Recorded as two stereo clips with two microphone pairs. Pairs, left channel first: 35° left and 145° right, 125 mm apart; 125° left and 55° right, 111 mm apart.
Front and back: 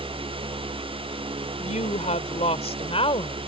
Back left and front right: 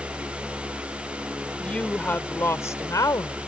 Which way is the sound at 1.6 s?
45° left.